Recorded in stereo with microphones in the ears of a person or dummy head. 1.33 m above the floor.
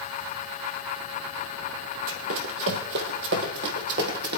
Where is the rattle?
I don't hear a rattle.